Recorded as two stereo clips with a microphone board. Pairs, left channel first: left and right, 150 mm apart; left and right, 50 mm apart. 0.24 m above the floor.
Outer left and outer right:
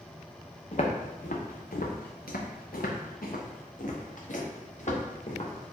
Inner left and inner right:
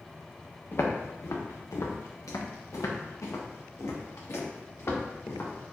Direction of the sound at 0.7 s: 50° left (ahead or behind).